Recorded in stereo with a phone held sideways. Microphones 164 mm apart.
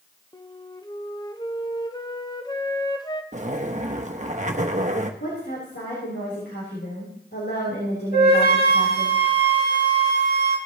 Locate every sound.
0.3 s a flute: 25° left (ahead or behind), 0.7 m
3.3 s a zipper: 45° right (ahead or behind), 0.8 m
5.2 s a woman speaking: 85° left, 3.5 m
8.1 s a flute: 65° left (ahead or behind), 2.5 m